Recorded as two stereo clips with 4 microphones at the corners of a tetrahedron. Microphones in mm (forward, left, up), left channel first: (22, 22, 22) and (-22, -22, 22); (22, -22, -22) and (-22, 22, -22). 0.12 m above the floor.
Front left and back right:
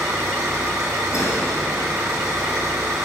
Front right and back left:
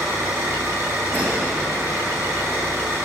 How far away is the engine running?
About 4.5 m.